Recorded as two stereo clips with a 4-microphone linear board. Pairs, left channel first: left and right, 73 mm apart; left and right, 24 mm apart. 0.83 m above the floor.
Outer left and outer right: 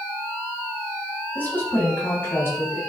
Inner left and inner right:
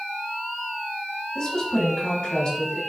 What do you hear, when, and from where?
1.4 s a woman speaking: 25° left (ahead or behind), 4 m; by 2.8 s 35° left (ahead or behind), 4.5 m